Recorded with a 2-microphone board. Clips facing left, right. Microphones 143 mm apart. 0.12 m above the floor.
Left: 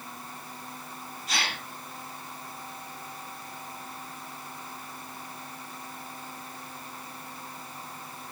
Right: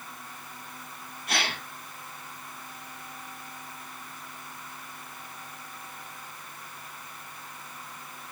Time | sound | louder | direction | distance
1.3 | a gasp | right 2 dB | 60° right (ahead or behind) | 3.5 m